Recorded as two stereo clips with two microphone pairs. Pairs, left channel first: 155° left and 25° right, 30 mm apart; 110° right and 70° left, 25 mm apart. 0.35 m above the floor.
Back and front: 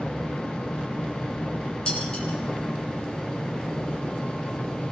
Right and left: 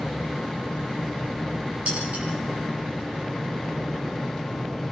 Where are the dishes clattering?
100° left, 8 m.